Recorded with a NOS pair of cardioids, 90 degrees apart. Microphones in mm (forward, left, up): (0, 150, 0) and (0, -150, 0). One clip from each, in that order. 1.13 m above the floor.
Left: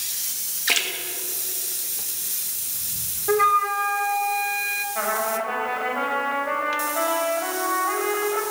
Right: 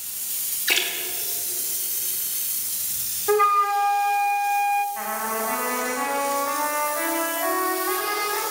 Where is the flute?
15° left, 1.3 m.